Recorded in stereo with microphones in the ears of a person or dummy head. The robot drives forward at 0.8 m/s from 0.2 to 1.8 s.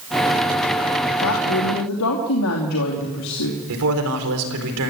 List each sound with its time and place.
1.2 s a woman speaking: 85° left, 2.5 m; by 3.6 s 75° left (ahead or behind), 2.5 m
3.7 s a man speaking: 80° right, 4.5 m